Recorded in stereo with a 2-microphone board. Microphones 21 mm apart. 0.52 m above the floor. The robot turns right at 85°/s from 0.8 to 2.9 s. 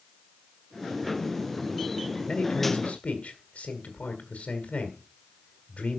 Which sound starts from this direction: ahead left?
A man speaking, at 2.3 s.